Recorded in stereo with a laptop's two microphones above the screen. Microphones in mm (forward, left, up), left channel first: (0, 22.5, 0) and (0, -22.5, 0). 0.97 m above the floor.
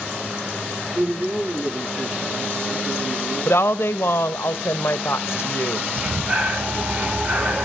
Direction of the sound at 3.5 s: 65° left (ahead or behind).